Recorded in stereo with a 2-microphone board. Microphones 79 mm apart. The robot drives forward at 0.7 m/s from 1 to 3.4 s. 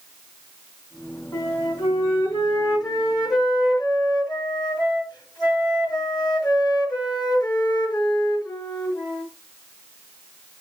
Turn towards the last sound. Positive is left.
turn(degrees=55)  # may be behind; listen again after turning